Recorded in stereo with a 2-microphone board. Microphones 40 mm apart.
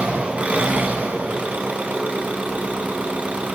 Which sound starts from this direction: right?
An engine running, at 0.0 s.